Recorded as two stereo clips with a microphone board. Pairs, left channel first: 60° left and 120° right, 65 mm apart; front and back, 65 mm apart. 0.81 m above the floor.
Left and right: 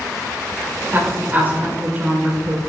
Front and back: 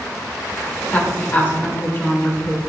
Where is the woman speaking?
60° right, 2.5 m.